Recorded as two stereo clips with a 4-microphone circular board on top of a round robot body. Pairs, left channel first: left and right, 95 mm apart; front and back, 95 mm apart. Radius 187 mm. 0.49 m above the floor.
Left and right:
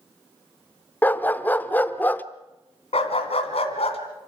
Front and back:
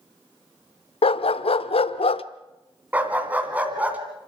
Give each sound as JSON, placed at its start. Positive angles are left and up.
{"t": 1.0, "sound": "a dog barking", "azimuth_deg": 15, "distance_m": 0.8}
{"t": 2.9, "sound": "a dog barking", "azimuth_deg": 105, "distance_m": 2.5}